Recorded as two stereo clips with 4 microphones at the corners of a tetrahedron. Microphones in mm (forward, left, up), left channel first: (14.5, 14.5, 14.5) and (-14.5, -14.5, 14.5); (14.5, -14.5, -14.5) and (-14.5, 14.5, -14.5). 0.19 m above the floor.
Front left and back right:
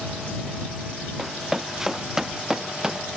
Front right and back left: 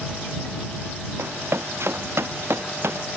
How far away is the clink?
I don't hear a clink.